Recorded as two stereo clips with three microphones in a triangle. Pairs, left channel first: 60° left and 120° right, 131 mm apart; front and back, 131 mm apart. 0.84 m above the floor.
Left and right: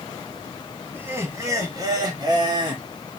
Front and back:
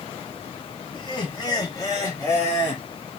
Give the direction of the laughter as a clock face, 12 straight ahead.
2 o'clock.